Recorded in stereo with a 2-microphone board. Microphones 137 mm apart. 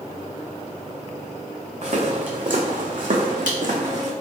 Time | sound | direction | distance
1.8 | footsteps | 60° right (ahead or behind) | 1.3 m